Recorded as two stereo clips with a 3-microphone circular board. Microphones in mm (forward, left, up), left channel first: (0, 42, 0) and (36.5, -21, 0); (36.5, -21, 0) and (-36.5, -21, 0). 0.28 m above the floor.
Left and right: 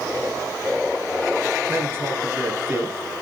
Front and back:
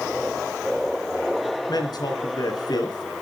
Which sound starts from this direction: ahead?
A man speaking, at 1.7 s.